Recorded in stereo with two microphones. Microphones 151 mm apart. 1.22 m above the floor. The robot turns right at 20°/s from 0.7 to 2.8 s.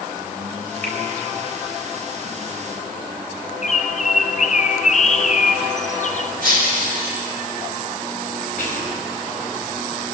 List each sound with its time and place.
0.8 s a finger snap: 10° left (ahead or behind), 3.5 m; by 1.0 s 15° left (ahead or behind), 3.5 m
3.6 s a bird: 55° left (ahead or behind), 0.5 m
6.4 s breaking glass: 70° right (ahead or behind), 4.5 m
8.6 s whispering: 75° left (ahead or behind), 4 m